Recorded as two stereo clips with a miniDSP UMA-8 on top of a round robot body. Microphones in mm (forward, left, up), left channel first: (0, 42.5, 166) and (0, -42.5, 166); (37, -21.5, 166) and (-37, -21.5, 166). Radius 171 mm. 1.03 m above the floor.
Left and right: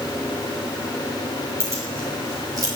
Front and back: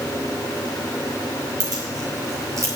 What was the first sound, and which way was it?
Keys jangling, 150° right.